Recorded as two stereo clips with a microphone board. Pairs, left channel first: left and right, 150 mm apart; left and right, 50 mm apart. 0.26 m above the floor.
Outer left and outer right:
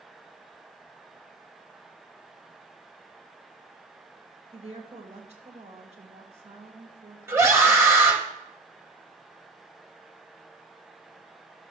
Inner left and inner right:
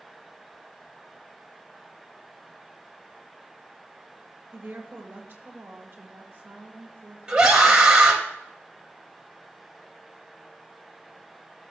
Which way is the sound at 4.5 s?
50° right (ahead or behind).